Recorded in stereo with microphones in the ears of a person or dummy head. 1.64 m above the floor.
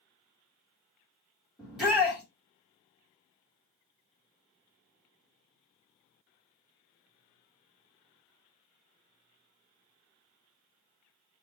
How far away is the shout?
About 1.5 m.